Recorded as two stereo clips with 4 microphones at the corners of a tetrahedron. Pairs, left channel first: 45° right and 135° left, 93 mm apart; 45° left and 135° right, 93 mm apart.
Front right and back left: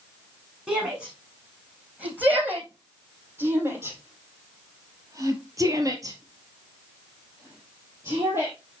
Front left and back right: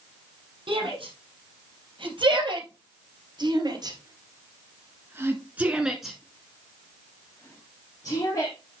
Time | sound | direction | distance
0.7 | a shout | 150° right | 4.5 m